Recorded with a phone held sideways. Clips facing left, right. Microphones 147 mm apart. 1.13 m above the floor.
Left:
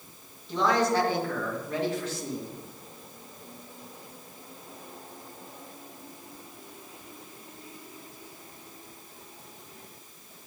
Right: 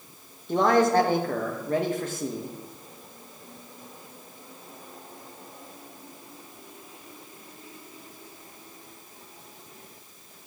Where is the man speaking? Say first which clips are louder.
Right 4 dB; 50° right (ahead or behind), 1.7 m.